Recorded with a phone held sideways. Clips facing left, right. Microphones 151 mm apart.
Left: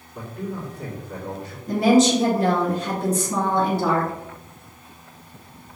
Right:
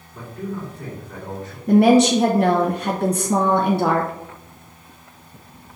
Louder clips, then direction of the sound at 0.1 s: Right 1 dB; 5° left (ahead or behind).